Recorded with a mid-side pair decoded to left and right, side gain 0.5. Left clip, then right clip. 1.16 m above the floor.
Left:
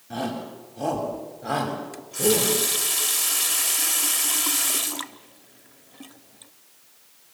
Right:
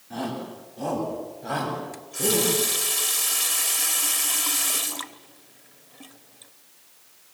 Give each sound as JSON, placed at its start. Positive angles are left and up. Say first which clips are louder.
{"t": 0.1, "sound": "a shout", "louder": "left 2 dB", "azimuth_deg": 55, "distance_m": 8.0}
{"t": 1.9, "sound": "a running tap", "louder": "left 4 dB", "azimuth_deg": 20, "distance_m": 1.5}